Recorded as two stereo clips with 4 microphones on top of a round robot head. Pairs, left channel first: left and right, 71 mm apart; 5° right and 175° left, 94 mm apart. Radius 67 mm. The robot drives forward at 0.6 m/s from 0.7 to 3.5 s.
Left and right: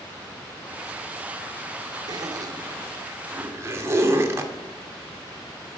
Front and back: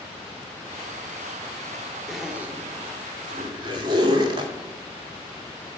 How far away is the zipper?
About 0.8 m.